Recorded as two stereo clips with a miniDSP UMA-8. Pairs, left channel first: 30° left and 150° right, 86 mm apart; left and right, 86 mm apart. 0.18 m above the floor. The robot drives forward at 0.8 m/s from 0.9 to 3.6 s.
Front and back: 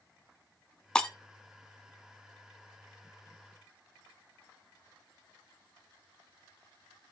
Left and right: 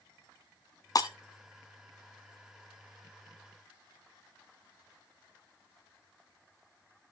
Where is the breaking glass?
110° left, 1.2 m; by 1.1 s 115° left, 1.2 m.